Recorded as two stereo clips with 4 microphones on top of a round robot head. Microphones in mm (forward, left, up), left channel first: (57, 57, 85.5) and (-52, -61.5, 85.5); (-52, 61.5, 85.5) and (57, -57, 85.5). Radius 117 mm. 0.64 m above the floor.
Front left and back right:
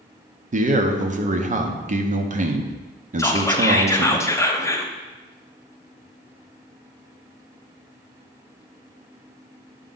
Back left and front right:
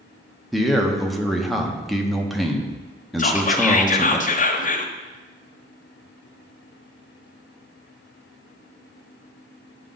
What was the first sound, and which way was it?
A man speaking, 135° right.